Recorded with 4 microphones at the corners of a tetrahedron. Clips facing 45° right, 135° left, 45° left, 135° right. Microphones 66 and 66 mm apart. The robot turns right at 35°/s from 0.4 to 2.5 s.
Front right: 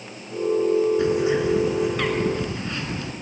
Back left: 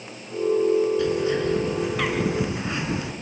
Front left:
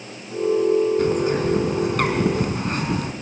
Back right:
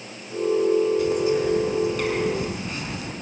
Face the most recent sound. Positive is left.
turn(degrees=65)